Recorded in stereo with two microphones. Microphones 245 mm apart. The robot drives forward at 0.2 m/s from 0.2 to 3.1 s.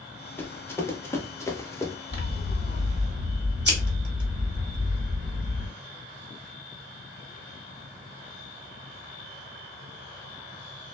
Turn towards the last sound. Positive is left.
turn(degrees=-50)  # may be behind; listen again after turning